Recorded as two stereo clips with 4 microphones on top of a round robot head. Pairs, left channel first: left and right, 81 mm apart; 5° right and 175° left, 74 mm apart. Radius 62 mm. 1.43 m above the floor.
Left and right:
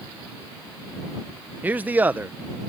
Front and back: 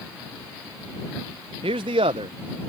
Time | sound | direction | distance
1.6 | a man speaking | 160° right | ?